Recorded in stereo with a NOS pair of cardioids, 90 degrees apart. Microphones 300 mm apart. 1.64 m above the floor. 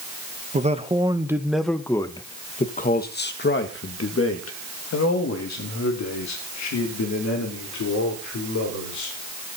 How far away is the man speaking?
About 1.7 m.